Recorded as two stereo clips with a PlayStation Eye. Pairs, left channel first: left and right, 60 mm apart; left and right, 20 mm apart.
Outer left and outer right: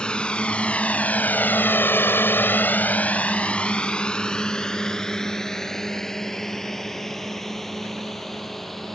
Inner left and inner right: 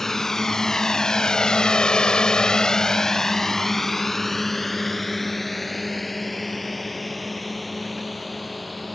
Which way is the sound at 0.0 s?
15° left (ahead or behind).